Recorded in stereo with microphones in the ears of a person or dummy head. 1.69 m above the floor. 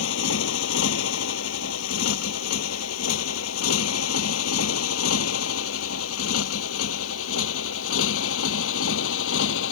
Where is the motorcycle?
70° left (ahead or behind); by 9.7 s 80° left.